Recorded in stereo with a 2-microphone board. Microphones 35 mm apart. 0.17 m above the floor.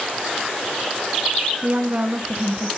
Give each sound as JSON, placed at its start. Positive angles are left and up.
{"t": 1.6, "sound": "a woman speaking", "side_deg": -40, "distance_m": 1.7}